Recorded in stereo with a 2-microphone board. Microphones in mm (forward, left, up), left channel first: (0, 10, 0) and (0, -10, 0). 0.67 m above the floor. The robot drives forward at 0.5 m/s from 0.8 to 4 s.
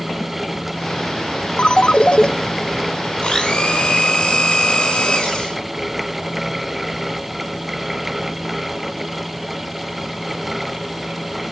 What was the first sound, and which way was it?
A ringtone, 65° left (ahead or behind).